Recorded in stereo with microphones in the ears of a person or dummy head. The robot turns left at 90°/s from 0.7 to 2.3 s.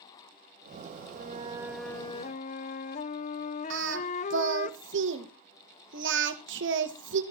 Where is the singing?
65° right (ahead or behind), 1.5 m.